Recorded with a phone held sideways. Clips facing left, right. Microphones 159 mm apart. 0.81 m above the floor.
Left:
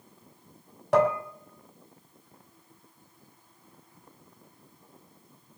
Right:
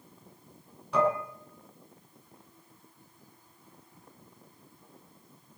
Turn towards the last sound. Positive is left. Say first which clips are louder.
# left 4 dB
turn(degrees=85)